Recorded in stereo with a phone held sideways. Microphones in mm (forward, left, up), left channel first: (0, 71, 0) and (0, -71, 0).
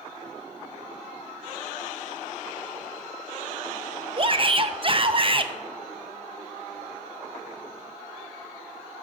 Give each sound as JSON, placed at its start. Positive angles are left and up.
{"t": 4.2, "sound": "a shout", "side_deg": -40, "distance_m": 0.7}